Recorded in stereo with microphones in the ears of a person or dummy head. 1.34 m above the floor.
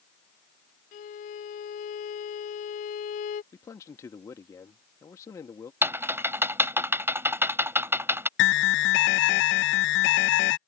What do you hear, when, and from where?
0.9 s a violin: 45° left (ahead or behind)
3.5 s a man speaking: 20° left (ahead or behind)
5.8 s typing on a keyboard: 15° right (ahead or behind)
8.4 s an alarm: 65° left (ahead or behind)